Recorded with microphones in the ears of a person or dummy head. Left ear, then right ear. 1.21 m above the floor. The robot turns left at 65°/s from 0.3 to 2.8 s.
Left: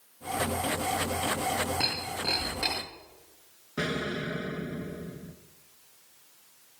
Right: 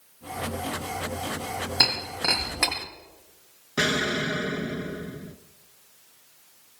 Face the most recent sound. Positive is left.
turn(degrees=-25)  # may be behind; listen again after turning